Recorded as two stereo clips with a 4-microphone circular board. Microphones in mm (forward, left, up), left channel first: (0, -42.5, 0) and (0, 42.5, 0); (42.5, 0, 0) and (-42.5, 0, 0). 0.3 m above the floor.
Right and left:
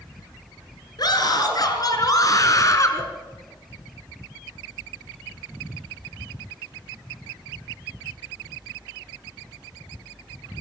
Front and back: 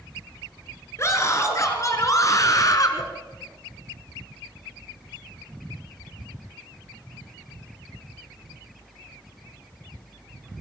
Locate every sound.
1.0 s a scream: 55° right, 5 m; by 3.0 s 40° right, 3.5 m